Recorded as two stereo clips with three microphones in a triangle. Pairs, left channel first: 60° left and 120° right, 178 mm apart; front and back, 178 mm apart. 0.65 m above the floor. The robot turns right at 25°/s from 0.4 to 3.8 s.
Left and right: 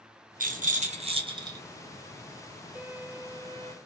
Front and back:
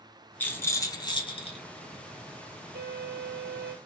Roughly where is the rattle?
Right.